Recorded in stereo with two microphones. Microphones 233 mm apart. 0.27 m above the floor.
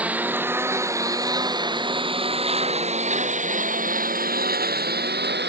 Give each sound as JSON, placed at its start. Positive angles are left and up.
{"t": 0.0, "sound": "a lawn mower", "side_deg": -5}